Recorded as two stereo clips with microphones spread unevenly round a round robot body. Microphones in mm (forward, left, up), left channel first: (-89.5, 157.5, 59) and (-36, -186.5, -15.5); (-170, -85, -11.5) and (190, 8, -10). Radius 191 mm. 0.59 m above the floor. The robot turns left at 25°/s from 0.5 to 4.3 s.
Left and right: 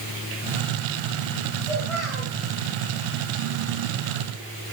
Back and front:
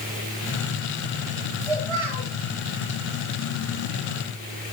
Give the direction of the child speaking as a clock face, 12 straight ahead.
11 o'clock.